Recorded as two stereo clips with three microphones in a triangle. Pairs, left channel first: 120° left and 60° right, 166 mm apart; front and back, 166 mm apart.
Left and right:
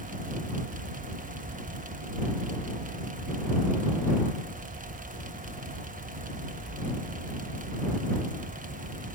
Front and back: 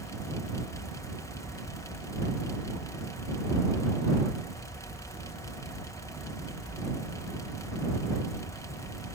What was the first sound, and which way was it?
Only background noise.